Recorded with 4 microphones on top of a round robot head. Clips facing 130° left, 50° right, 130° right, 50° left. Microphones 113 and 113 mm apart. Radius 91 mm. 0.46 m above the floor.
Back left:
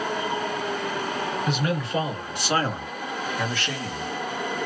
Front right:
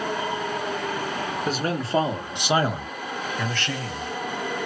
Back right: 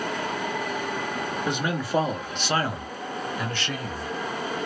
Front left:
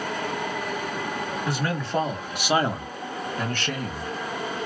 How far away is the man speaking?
About 1.2 m.